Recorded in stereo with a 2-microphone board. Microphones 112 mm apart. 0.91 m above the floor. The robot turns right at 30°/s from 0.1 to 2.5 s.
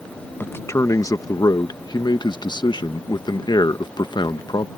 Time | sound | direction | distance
0.4 | a man speaking | 30° left | ?